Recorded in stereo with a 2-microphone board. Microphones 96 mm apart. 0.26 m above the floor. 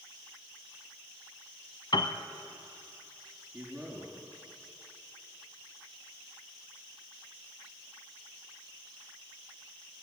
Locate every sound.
1.9 s a piano: 50° left (ahead or behind), 1.1 m
3.5 s a man speaking: centre (ahead or behind), 4 m